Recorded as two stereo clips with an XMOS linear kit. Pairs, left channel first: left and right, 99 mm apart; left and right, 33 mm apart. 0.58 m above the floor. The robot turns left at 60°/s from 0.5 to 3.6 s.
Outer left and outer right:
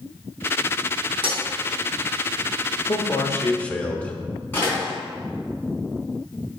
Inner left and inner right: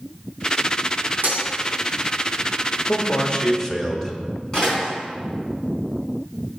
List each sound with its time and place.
1.2 s breaking glass: 65° right (ahead or behind), 3.5 m; by 1.4 s 80° right, 3.5 m
2.9 s a man speaking: 60° left, 1.4 m; by 4.2 s 15° left, 1.4 m
4.5 s a door slam: 20° left (ahead or behind), 4.5 m